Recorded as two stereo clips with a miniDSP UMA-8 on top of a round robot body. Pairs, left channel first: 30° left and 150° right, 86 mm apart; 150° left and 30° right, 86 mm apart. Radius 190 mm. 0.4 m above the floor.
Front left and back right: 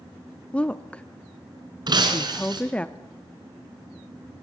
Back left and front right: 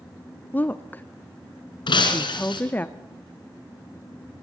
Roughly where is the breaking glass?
Behind.